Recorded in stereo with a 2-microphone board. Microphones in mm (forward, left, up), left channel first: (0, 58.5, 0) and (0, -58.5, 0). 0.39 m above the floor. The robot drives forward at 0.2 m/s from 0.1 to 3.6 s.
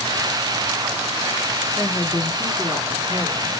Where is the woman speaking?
25° left (ahead or behind), 0.8 m.